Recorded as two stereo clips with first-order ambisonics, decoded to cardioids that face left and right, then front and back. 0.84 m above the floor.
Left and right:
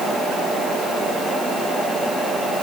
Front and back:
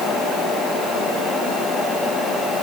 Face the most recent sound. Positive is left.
No sound to turn to.